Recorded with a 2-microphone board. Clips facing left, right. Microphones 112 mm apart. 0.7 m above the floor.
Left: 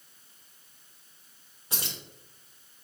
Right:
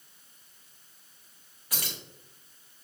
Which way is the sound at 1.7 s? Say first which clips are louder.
Left 1 dB; 25° left (ahead or behind).